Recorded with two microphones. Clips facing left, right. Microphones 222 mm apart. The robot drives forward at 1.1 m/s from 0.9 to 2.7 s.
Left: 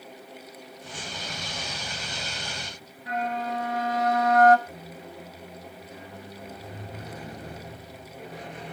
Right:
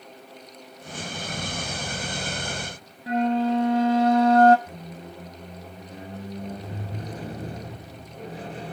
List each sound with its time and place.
3.1 s a flute: 30° right (ahead or behind), 1.3 m
4.7 s a squeak: 30° right (ahead or behind), 2 m